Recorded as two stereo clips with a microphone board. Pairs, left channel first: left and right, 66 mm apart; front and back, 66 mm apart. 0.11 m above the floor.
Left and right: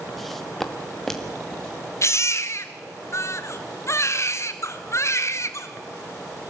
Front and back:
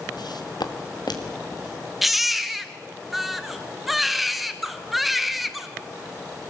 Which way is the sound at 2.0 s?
90° left.